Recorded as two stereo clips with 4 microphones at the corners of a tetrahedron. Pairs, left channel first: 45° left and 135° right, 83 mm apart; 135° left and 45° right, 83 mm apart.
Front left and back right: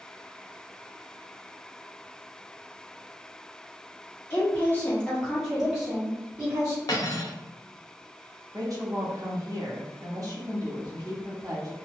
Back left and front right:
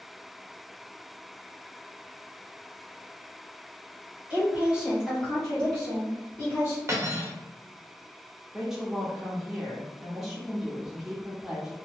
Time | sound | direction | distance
4.3 | a woman speaking | 10° left | 1.5 m
6.9 | cutlery clinking | 5° left | 0.7 m
8.5 | a woman speaking | 130° right | 0.9 m